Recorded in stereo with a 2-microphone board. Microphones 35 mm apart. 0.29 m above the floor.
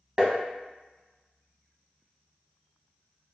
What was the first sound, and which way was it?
Tapping, 25° right (ahead or behind).